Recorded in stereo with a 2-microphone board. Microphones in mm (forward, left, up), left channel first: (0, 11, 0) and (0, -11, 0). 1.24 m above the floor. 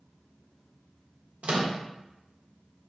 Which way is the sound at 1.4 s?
65° right (ahead or behind).